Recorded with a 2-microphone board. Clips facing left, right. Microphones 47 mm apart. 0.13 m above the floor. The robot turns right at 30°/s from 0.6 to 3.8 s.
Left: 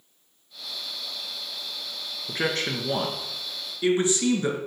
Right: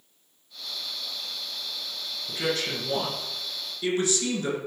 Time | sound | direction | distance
2.3 | a man speaking | 105° left | 1.5 m